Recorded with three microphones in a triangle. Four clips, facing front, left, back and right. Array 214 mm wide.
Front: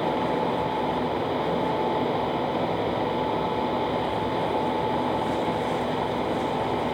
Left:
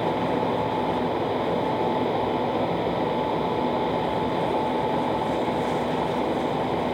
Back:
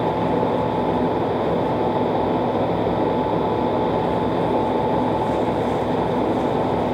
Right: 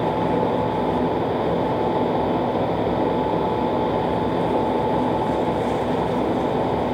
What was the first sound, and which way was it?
Only background noise.